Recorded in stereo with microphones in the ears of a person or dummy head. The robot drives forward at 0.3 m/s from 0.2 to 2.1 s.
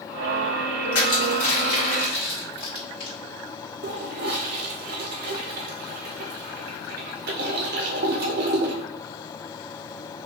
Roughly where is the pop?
No pop in this recording.